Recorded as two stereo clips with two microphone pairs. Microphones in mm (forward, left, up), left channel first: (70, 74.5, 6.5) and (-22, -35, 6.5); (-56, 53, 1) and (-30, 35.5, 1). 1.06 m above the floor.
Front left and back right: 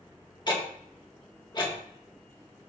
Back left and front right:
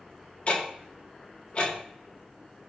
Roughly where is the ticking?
Left.